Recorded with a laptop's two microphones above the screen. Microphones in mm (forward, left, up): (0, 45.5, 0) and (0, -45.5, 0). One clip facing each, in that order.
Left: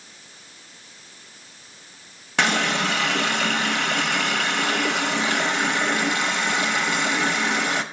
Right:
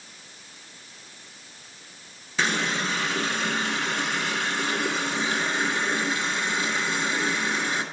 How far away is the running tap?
About 0.7 m.